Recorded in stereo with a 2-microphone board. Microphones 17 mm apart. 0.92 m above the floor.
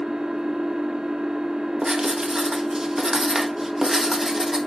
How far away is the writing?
About 1.3 m.